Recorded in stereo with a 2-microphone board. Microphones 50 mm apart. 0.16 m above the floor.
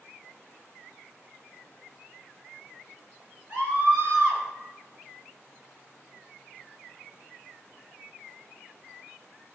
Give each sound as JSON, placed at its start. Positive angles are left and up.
{"t": 3.5, "sound": "a scream", "side_deg": -25, "distance_m": 3.0}